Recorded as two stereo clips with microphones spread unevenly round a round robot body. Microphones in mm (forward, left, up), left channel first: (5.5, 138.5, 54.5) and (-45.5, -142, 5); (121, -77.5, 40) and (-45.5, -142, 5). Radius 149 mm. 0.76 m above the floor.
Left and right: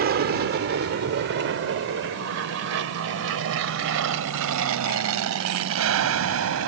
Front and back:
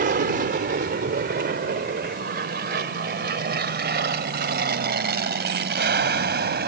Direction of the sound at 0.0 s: 145° right.